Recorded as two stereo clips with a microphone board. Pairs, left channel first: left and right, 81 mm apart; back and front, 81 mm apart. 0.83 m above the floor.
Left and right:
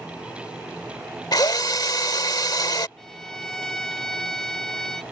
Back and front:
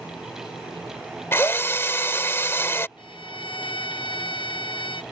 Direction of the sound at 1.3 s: 120° left.